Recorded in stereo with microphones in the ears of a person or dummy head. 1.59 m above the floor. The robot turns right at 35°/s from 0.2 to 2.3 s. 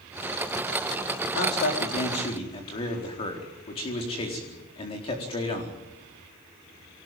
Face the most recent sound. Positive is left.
turn(degrees=145)